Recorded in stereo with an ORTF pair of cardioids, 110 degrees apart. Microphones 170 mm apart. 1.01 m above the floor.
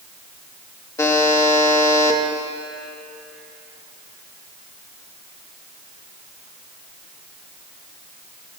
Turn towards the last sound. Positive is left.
turn(degrees=20)